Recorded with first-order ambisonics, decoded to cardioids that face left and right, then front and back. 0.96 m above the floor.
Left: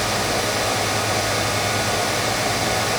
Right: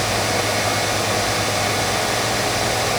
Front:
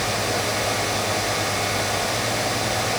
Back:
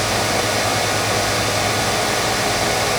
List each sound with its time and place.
Only background noise.